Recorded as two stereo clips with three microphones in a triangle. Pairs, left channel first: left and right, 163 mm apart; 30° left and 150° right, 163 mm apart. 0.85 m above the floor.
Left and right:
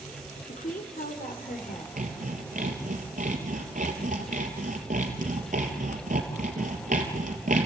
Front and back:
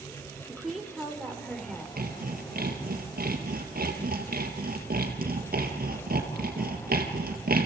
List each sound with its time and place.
0.5 s a woman speaking: 125° left, 2.5 m; by 1.9 s 115° left, 3.5 m
2.0 s sawing: 125° right, 3.5 m